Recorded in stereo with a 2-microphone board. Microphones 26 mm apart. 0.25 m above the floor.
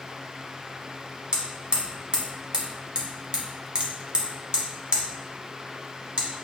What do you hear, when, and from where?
1.3 s hammering: 40° right (ahead or behind), 1.0 m